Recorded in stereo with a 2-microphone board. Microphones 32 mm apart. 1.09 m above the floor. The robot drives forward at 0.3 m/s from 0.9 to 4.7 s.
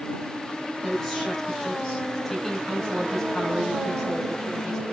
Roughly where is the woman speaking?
Centre.